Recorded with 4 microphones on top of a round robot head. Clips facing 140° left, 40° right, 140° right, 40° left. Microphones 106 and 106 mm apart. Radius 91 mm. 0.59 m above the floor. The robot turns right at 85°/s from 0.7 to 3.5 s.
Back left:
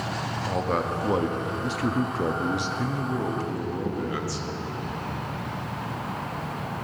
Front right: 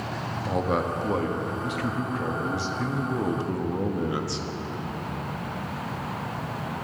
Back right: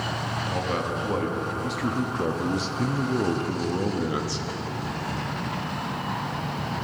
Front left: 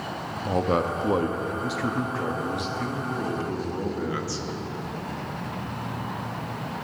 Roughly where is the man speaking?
Ahead left.